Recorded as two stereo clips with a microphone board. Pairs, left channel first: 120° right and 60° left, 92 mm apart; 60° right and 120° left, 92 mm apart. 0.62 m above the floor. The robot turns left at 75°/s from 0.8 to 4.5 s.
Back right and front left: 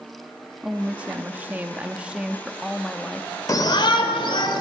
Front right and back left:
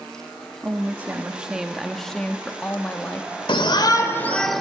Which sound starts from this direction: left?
A woman speaking, at 0.6 s.